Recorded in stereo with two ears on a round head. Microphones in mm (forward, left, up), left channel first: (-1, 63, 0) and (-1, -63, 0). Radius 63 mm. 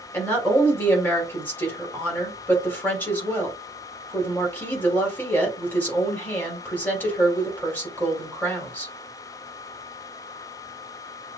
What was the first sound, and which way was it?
A woman speaking, 15° left (ahead or behind).